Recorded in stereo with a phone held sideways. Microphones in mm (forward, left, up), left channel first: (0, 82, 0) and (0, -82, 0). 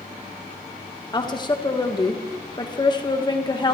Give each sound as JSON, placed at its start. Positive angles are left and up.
{"t": 1.1, "sound": "a woman speaking", "side_deg": 25, "distance_m": 1.4}